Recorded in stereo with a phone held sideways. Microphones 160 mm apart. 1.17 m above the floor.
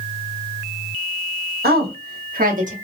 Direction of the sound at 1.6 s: 75° right (ahead or behind).